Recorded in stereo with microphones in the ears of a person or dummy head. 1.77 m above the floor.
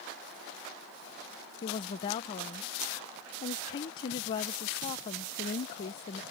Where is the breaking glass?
I don't hear breaking glass.